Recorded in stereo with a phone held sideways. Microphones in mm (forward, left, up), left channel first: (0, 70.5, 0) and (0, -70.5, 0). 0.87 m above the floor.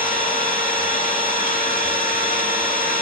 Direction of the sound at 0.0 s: 65° left (ahead or behind).